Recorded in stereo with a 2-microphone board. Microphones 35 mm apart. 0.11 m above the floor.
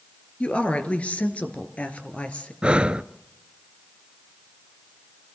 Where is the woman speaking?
35° left (ahead or behind), 2 m; by 2.5 s 40° left (ahead or behind), 2 m.